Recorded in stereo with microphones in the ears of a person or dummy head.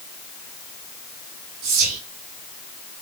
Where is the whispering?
50° right (ahead or behind), 0.6 m.